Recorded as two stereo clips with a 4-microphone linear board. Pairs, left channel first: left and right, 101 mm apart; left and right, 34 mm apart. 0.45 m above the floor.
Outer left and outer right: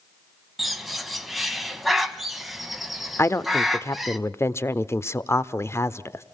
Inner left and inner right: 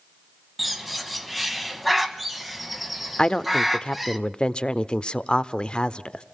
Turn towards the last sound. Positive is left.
turn(degrees=25)  # may be behind; listen again after turning